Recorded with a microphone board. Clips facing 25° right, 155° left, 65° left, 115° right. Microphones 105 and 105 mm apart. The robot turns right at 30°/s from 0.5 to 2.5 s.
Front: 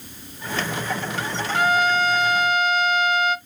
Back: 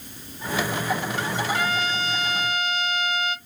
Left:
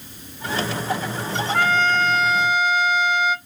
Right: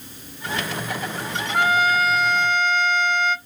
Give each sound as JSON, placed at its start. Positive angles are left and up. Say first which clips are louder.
{"t": 1.5, "sound": "a trumpet", "louder": "front 6 dB, right 1 dB", "azimuth_deg": -40, "distance_m": 0.8}